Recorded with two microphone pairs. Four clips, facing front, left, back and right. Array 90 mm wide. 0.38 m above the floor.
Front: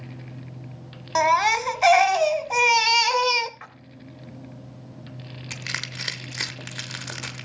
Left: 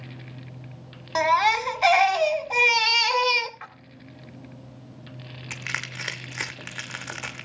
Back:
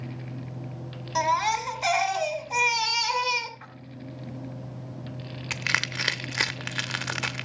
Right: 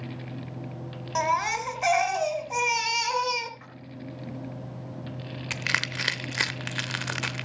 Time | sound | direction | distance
1.1 | a baby crying | 20° left | 1.0 m
3.6 | a splash | 35° left | 2.0 m
5.5 | crushing | 160° right | 0.8 m